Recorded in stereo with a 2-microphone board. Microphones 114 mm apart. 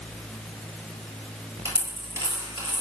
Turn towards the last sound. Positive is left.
turn(degrees=-25)  # may be behind; listen again after turning